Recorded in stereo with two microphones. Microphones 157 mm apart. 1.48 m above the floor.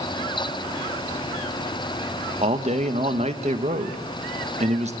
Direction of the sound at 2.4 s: 45° right (ahead or behind).